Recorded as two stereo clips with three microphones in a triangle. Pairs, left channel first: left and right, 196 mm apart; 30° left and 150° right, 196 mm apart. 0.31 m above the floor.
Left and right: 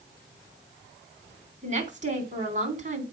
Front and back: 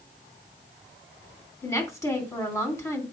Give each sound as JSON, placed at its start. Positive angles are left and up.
{"t": 1.6, "sound": "a woman speaking", "azimuth_deg": -45, "distance_m": 3.0}